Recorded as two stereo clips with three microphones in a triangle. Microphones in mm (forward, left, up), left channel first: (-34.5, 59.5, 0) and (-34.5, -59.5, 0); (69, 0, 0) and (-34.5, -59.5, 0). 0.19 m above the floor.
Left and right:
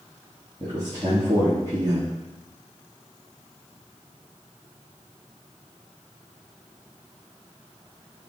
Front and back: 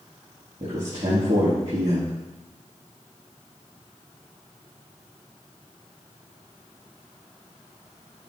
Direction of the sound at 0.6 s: 135° right.